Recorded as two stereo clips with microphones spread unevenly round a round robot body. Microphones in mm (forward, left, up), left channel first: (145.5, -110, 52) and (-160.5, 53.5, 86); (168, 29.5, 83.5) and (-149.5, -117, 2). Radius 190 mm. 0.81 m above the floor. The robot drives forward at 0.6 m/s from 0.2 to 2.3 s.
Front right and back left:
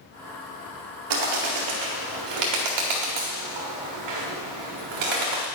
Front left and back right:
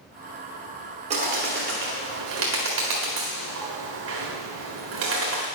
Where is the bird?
135° left, 1.2 m; by 5.5 s 150° left, 1.8 m.